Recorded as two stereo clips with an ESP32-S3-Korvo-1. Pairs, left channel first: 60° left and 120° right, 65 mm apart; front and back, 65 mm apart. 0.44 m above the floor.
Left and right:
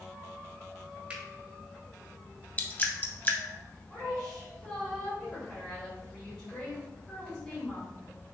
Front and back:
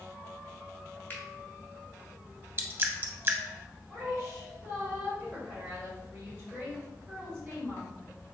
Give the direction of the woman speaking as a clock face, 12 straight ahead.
8 o'clock.